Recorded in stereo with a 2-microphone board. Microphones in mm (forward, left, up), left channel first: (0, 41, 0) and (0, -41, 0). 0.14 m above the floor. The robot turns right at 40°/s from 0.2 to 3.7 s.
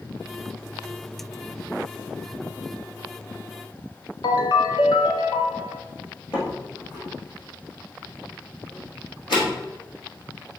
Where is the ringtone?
65° left (ahead or behind), 1.1 m.